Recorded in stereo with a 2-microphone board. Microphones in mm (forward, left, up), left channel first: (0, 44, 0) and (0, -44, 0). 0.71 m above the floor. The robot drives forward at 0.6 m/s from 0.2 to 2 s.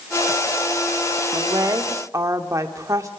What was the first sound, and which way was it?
A woman speaking, 50° right (ahead or behind).